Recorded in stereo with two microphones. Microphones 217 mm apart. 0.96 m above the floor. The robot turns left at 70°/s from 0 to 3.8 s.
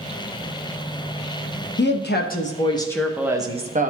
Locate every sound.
1.8 s a woman speaking: 95° left, 0.7 m; by 3.9 s 50° right, 0.7 m